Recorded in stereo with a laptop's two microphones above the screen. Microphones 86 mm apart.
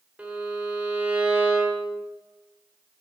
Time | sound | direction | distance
0.2 | a violin | 15° right (ahead or behind) | 1.7 m